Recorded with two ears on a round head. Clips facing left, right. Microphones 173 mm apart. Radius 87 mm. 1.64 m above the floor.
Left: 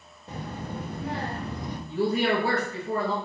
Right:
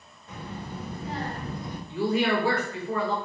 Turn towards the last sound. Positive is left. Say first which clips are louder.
# even
turn(degrees=35)  # may be behind; listen again after turning